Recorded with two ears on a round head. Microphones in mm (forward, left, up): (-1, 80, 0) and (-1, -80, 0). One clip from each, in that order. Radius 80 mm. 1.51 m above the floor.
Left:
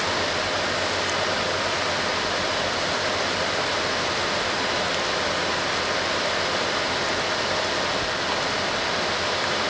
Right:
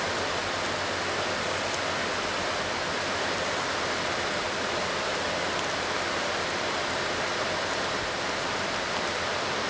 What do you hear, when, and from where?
Only background noise.